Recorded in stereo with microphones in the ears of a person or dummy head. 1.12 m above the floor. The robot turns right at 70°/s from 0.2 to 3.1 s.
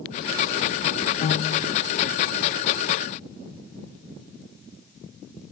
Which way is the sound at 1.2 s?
140° left.